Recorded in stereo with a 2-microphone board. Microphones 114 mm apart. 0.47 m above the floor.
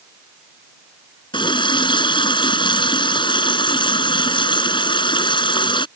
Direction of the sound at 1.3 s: 45° left (ahead or behind).